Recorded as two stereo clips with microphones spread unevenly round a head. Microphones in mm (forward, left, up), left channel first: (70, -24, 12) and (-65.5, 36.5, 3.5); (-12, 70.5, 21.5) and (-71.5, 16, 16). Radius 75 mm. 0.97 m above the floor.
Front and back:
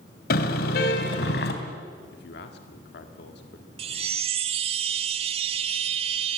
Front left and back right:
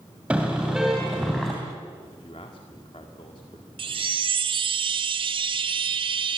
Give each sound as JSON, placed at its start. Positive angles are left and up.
{"t": 0.3, "sound": "a car horn", "azimuth_deg": -55, "distance_m": 3.0}
{"t": 2.1, "sound": "a man speaking", "azimuth_deg": -5, "distance_m": 1.8}
{"t": 3.8, "sound": "a chime", "azimuth_deg": -150, "distance_m": 1.0}